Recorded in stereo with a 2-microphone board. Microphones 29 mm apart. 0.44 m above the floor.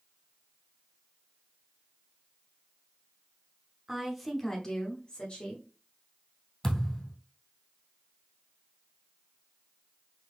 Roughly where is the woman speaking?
Centre.